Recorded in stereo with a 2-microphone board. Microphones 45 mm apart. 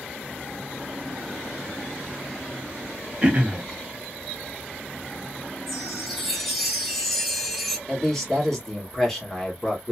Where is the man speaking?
5° left (ahead or behind), 1.4 m.